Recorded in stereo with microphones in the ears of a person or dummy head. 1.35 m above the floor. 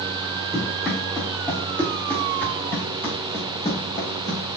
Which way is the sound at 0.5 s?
Centre (ahead or behind).